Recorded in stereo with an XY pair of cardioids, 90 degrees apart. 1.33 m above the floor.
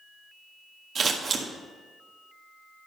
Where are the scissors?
50° right, 1.7 m.